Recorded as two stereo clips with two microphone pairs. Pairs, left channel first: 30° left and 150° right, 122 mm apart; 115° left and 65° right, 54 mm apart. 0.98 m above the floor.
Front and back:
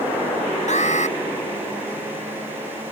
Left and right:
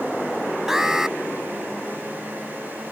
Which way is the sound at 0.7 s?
15° left.